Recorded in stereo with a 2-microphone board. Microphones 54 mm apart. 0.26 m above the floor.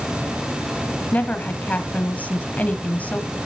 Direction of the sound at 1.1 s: 25° left (ahead or behind).